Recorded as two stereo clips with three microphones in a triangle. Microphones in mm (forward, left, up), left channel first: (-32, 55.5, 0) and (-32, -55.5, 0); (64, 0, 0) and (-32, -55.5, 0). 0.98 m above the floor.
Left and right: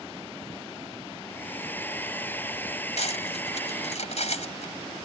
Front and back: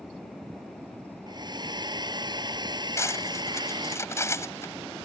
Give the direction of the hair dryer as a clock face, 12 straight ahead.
7 o'clock.